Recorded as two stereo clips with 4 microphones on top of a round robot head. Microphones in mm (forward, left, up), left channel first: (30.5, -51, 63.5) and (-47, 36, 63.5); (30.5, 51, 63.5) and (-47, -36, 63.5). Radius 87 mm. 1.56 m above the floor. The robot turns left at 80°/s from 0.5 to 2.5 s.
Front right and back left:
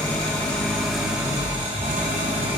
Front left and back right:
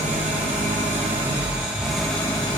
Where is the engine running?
105° right, 1.0 m; by 2.6 s 95° left, 1.0 m.